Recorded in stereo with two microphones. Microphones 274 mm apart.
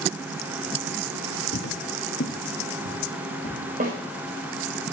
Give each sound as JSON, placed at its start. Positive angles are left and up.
{"t": 1.5, "sound": "footsteps", "side_deg": 55, "distance_m": 0.9}
{"t": 3.8, "sound": "a snare drum", "side_deg": -35, "distance_m": 4.0}